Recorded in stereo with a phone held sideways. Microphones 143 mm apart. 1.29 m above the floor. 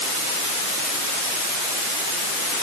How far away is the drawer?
I don't hear a drawer.